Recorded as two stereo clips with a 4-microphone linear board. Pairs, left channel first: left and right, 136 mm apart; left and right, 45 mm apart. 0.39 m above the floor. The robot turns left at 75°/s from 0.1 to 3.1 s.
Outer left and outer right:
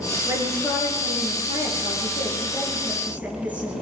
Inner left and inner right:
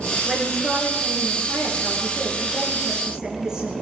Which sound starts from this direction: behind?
A woman speaking, at 0.3 s.